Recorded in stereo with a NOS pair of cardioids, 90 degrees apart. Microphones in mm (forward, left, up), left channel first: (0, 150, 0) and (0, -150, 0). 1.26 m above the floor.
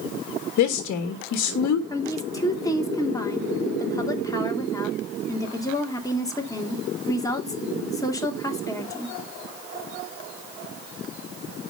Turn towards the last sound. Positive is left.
turn(degrees=10)